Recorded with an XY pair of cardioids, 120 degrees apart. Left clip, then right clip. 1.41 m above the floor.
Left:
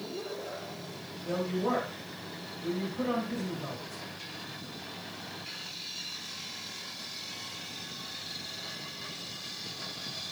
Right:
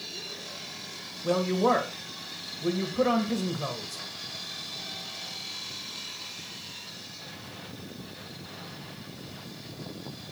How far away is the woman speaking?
About 1.6 m.